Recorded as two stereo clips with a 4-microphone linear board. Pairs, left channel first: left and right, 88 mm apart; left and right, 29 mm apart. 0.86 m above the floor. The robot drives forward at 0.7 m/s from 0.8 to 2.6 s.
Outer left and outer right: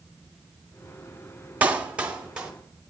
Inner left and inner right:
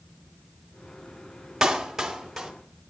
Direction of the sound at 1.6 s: 20° right (ahead or behind).